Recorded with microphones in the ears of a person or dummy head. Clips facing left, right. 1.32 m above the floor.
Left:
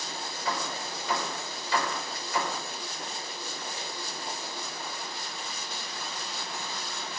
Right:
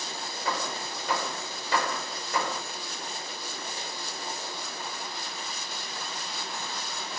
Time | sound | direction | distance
0.5 | hammering | 50° right (ahead or behind) | 5 m